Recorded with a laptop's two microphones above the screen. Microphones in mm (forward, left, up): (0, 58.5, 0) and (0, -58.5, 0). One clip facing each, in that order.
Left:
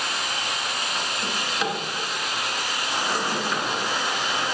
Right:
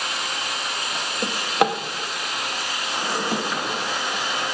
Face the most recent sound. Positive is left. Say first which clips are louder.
# right 9 dB
turn(degrees=-60)  # may be behind; listen again after turning